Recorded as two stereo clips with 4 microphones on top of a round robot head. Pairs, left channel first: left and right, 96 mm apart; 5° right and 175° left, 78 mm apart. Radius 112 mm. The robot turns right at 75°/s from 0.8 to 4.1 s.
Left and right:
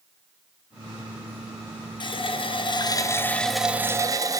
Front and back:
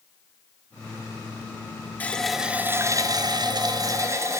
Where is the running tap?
65° left, 0.7 m; by 4.4 s 140° right, 0.7 m.